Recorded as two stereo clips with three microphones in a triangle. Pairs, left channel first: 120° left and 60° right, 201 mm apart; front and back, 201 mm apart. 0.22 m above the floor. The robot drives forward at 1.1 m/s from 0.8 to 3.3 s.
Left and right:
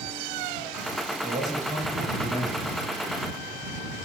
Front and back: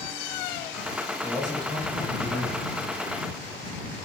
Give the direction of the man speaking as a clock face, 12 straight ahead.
4 o'clock.